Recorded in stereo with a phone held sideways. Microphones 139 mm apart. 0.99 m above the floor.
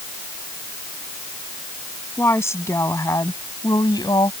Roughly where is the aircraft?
I don't hear an aircraft.